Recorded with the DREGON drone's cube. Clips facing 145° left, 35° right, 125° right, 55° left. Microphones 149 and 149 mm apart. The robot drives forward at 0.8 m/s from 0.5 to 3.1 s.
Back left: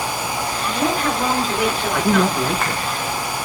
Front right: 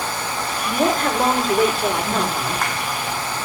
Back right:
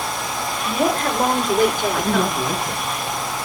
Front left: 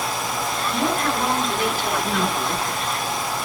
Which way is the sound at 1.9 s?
170° left.